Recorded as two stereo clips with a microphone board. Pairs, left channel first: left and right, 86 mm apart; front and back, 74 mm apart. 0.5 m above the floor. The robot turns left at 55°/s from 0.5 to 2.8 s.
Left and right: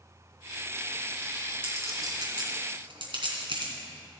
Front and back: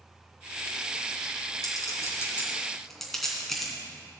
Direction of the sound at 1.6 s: 25° right.